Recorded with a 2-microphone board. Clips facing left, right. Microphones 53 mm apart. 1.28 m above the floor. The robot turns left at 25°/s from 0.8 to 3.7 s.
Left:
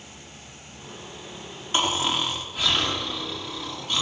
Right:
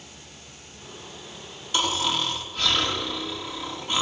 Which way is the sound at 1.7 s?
30° left.